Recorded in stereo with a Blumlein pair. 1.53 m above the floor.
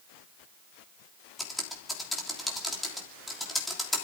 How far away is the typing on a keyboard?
About 3 m.